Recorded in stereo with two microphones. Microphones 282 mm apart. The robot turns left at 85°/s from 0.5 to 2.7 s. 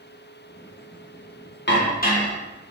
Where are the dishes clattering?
85° left, 0.7 m; by 2.4 s 30° left, 0.7 m.